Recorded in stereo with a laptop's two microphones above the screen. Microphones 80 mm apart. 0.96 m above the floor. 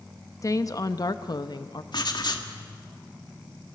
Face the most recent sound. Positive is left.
turn(degrees=55)  # may be behind; listen again after turning